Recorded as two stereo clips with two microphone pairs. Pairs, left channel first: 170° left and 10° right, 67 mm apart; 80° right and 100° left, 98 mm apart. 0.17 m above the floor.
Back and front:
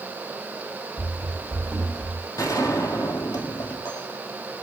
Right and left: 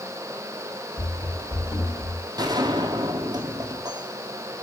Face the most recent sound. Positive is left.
turn(degrees=145)